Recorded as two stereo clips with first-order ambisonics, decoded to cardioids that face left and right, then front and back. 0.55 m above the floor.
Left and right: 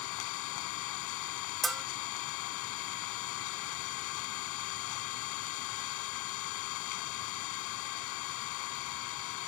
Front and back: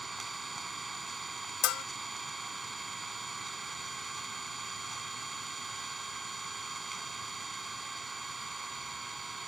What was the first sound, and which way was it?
An engine running, 100° left.